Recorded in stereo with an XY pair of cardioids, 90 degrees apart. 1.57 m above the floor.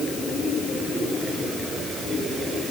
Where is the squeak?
I don't hear a squeak.